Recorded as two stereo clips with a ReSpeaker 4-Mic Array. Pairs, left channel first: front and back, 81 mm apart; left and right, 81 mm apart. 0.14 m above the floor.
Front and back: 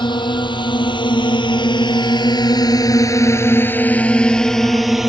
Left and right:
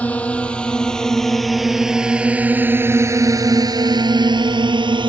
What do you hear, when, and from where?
0.0 s a drone: 15° left; by 5.1 s 95° right